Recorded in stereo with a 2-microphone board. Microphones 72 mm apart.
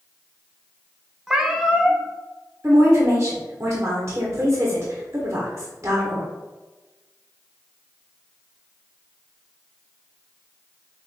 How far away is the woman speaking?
About 1.1 m.